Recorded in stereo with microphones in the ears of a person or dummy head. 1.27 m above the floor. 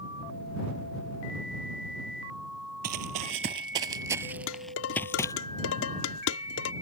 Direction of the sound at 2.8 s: 50° right (ahead or behind).